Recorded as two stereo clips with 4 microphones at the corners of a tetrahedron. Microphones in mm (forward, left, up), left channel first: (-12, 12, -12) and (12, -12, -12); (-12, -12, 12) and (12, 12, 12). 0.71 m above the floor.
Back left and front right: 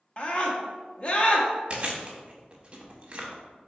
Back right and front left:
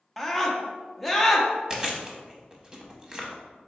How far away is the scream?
About 0.7 m.